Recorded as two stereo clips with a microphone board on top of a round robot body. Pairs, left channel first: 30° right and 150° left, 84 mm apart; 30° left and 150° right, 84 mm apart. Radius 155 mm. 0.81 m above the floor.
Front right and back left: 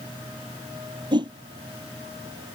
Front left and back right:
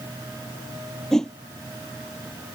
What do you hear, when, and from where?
1.1 s a whoosh: 115° left